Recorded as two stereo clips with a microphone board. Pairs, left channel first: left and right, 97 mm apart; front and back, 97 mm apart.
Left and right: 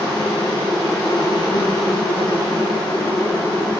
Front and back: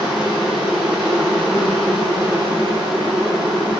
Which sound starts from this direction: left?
An insect, at 0.0 s.